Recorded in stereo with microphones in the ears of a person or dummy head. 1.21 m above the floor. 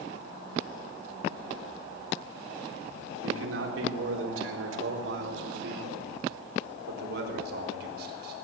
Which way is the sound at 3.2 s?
80° right.